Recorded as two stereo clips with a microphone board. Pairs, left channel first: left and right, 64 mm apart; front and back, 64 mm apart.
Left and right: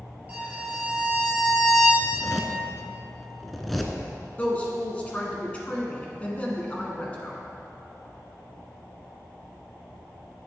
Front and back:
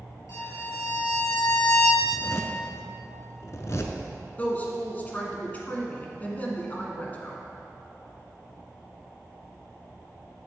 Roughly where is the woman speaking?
Ahead left.